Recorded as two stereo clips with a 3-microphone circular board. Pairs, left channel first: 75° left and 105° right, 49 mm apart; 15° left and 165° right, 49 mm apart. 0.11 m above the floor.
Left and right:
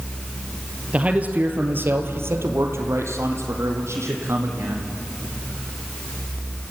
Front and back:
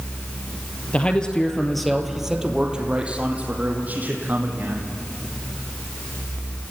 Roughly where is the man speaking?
Ahead right.